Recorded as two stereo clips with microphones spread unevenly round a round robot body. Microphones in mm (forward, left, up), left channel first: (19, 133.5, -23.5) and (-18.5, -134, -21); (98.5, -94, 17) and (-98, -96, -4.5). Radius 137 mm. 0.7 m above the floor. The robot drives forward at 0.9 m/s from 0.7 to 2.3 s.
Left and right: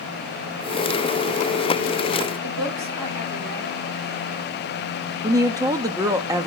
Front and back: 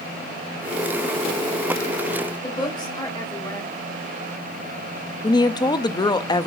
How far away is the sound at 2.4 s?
About 4 m.